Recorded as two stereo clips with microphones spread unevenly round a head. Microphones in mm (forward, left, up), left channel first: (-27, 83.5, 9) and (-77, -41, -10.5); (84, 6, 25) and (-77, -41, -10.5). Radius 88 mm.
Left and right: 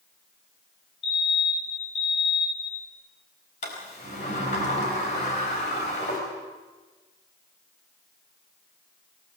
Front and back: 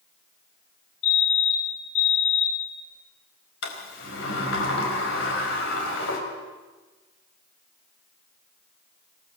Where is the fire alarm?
5° left, 3 m.